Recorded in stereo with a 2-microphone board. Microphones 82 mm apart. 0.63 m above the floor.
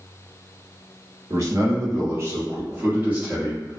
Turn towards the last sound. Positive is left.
turn(degrees=-15)  # may be behind; listen again after turning